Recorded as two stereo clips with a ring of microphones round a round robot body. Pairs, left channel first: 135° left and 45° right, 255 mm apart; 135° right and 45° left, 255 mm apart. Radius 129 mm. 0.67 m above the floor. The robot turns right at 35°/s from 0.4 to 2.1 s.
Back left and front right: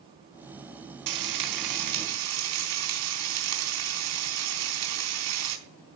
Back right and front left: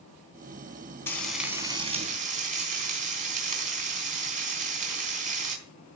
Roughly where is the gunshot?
I don't hear a gunshot.